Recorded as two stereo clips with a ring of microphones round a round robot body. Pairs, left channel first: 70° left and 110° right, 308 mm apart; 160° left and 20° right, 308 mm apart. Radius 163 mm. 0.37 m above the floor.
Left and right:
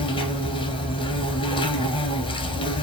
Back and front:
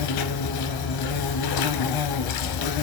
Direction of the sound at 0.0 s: 140° left.